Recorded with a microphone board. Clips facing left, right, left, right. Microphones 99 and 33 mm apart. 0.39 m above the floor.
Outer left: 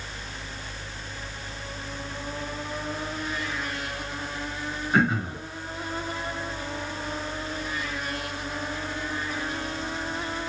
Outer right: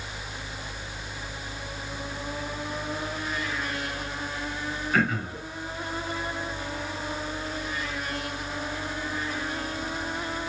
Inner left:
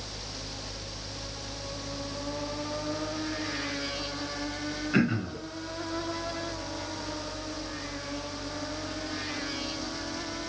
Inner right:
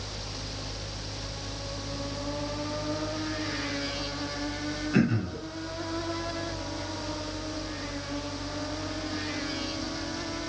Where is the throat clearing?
20° left (ahead or behind), 1.4 m.